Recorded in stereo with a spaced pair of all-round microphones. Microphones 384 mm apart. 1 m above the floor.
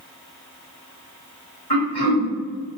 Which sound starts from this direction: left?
Throat clearing, at 1.7 s.